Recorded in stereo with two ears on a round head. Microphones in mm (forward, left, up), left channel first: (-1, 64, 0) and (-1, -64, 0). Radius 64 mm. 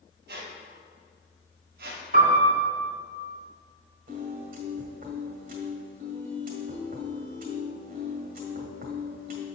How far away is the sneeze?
I don't hear a sneeze.